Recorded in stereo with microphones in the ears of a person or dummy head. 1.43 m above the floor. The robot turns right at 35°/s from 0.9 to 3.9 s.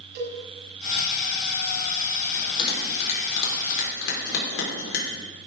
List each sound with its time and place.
0.1 s a cowbell: 60° right (ahead or behind), 6 m
2.3 s a bell: 15° left (ahead or behind), 5.5 m; by 5.1 s 70° left (ahead or behind), 5.5 m